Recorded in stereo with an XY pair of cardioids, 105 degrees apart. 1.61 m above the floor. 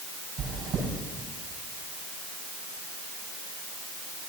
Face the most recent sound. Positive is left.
turn(degrees=-60)